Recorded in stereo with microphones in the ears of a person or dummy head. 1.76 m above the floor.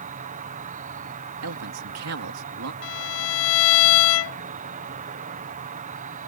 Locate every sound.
0.0 s an insect: 40° right (ahead or behind)
1.4 s a man speaking: 75° right (ahead or behind)
2.8 s a violin: 80° left